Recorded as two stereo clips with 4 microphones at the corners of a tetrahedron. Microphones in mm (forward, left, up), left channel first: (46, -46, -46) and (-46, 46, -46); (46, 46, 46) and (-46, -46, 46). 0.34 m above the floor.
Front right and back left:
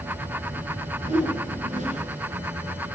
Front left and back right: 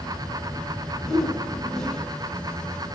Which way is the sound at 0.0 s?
130° left.